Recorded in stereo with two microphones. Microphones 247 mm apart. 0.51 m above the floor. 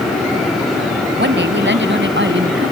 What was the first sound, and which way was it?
A woman speaking, 50° right (ahead or behind).